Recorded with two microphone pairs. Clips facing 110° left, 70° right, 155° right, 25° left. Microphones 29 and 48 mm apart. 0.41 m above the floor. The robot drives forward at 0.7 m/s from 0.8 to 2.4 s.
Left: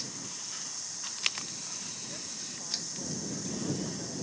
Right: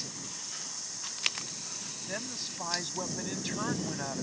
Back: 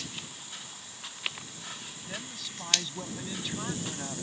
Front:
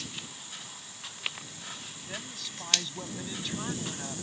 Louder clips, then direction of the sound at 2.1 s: Right 5 dB, even; 65° right.